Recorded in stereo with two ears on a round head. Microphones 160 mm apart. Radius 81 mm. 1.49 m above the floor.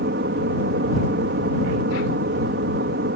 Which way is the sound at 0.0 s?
60° right (ahead or behind).